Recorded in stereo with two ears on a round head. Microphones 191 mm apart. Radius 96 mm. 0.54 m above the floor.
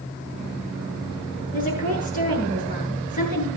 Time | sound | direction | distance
1.5 | a woman speaking | 40° left (ahead or behind) | 6.5 m